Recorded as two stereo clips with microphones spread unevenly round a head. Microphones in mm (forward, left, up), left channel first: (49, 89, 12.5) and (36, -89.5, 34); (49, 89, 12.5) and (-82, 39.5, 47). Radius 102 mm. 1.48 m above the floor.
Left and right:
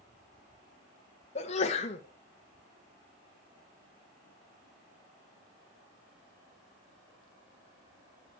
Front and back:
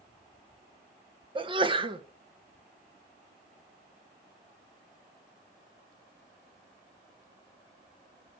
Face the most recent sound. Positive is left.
turn(degrees=145)